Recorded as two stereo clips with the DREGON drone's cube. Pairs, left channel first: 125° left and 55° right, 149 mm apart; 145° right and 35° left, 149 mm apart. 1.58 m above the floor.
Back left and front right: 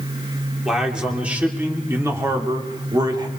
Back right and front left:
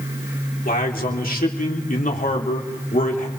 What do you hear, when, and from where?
0.7 s a man speaking: 140° right, 3.5 m; by 3.3 s 115° right, 3.5 m